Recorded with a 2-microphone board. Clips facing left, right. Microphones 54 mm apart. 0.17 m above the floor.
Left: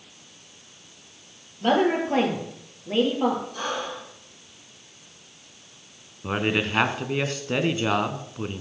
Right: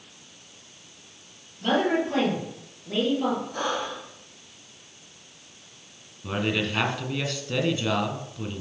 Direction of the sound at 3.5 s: 60° right (ahead or behind).